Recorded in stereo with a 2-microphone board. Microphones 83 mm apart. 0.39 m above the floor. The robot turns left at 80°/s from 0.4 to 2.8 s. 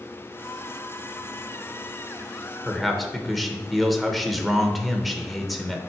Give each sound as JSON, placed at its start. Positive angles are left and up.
{"t": 2.6, "sound": "a man speaking", "side_deg": 10, "distance_m": 0.9}